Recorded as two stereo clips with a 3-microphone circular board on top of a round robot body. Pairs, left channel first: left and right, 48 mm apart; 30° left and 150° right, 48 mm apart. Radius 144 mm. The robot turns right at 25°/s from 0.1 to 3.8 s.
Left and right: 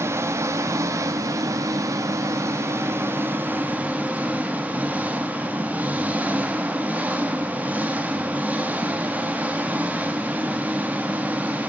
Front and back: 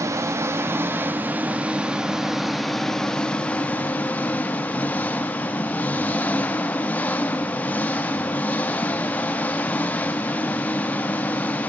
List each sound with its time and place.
0.0 s an engine running: 125° right, 0.9 m; by 11.7 s 30° right, 0.9 m